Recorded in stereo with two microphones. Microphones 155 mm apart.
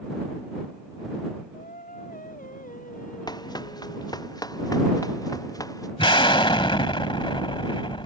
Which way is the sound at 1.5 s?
60° left (ahead or behind).